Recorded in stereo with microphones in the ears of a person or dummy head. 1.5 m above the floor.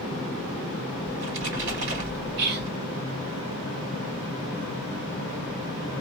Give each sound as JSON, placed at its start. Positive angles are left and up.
{"t": 1.1, "sound": "a splash", "side_deg": -65, "distance_m": 1.7}
{"t": 2.4, "sound": "whispering", "side_deg": -55, "distance_m": 1.5}